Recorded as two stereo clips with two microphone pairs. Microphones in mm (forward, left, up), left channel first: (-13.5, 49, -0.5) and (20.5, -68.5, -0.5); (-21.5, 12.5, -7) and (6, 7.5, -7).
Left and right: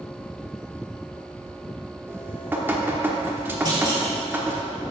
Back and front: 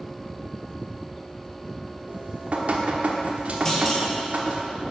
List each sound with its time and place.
2.1 s dripping: 5° right, 1.0 m
3.6 s a clunk: 125° right, 1.6 m